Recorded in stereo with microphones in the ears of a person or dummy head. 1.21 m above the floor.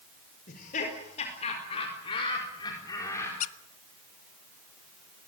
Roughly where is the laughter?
Left.